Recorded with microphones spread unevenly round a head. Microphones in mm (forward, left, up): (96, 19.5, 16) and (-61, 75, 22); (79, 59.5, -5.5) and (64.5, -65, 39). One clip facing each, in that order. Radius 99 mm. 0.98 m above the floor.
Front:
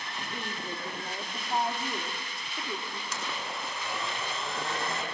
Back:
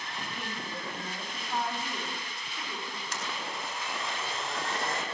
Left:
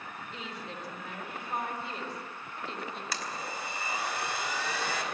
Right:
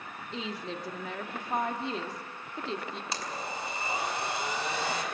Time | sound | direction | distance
0.3 | a woman speaking | 90° right | 2.5 m
3.1 | a blender | 35° right | 5 m